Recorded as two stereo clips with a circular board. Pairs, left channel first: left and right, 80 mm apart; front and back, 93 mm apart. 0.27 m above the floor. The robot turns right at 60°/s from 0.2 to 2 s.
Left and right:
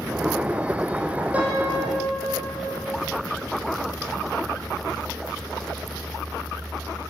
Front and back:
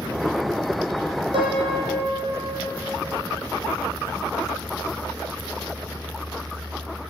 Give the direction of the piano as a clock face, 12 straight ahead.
5 o'clock.